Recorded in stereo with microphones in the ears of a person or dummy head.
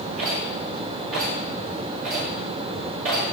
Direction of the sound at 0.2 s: 80° right.